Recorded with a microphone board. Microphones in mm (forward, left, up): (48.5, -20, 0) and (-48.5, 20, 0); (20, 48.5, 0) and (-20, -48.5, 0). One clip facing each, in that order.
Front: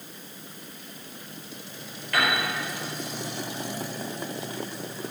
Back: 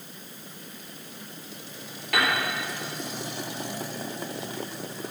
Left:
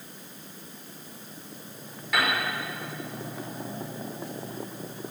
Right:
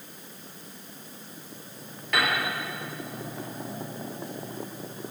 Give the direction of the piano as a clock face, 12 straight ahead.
7 o'clock.